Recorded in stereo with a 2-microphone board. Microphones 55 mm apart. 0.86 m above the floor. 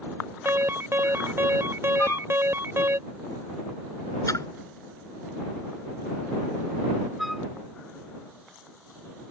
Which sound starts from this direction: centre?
A flute, at 7.2 s.